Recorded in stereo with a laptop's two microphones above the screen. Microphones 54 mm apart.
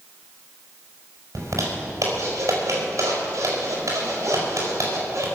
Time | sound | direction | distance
1.4 | a zipper | 70° right (ahead or behind) | 5.5 m